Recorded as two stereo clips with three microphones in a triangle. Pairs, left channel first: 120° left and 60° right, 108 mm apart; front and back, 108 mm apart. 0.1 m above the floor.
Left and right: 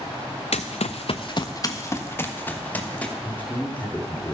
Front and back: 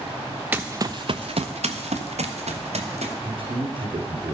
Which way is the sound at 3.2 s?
170° right.